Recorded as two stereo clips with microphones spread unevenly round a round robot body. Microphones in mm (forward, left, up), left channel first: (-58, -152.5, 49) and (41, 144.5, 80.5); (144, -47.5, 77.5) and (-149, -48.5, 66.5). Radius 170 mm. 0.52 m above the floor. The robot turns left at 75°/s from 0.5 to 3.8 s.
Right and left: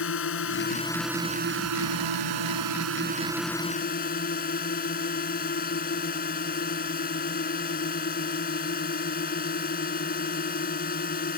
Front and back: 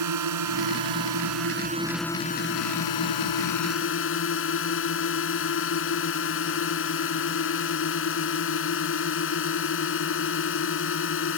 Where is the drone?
160° right; by 11.4 s 45° right.